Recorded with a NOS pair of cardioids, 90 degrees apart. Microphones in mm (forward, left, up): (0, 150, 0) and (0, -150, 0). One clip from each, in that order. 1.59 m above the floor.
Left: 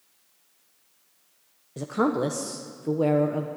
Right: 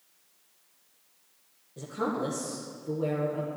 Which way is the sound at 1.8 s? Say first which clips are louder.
Left 6 dB; 65° left.